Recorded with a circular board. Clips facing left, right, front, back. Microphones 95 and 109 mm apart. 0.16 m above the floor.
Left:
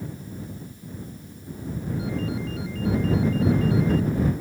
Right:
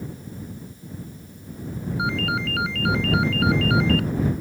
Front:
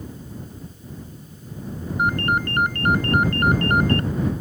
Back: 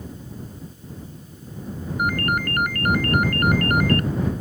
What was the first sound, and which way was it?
A ringtone, 65° right.